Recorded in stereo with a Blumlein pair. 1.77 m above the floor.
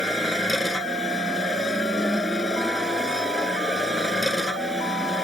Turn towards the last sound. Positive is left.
turn(degrees=5)